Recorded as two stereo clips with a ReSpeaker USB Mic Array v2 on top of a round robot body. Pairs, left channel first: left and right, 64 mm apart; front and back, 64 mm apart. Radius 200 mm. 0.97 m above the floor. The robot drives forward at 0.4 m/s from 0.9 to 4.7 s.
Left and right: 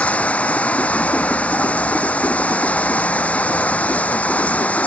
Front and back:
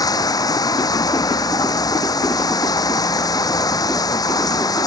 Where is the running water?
20° left.